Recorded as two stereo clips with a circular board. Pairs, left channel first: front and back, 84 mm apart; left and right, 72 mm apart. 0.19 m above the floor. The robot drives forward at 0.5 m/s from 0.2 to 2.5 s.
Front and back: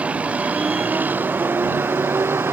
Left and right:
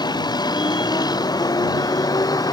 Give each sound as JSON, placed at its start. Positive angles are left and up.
{"t": 0.0, "sound": "a vehicle", "azimuth_deg": 105}